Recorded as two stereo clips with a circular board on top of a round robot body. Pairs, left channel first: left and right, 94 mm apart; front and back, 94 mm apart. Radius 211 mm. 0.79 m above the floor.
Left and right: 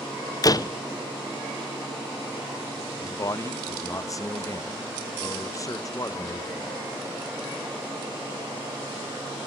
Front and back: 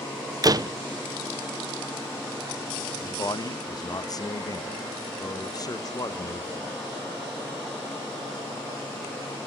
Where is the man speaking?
40° left, 1.5 m.